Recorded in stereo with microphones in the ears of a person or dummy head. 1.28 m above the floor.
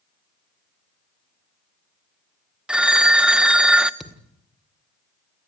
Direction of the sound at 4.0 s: Centre (ahead or behind).